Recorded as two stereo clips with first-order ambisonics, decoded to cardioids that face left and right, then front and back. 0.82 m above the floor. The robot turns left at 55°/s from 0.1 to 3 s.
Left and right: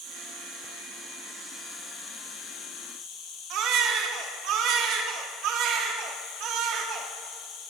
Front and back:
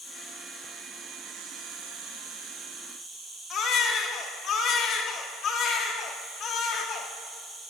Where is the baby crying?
55° right, 1.1 m.